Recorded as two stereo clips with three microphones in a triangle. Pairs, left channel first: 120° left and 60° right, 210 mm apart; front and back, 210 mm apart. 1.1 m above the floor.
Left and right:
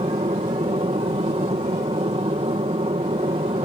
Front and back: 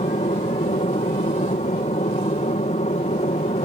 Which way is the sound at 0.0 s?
25° right.